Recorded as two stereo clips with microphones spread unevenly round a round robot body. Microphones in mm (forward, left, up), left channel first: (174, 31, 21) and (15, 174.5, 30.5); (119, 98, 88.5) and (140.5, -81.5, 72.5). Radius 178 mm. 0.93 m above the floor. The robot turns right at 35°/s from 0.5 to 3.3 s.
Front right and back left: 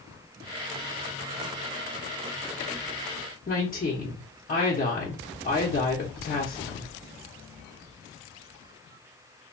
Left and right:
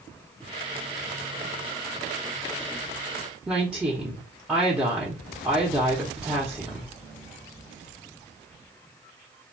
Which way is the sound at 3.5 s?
5° right.